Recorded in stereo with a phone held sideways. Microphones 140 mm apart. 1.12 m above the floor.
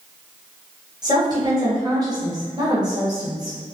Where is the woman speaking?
30° right (ahead or behind), 1.3 m.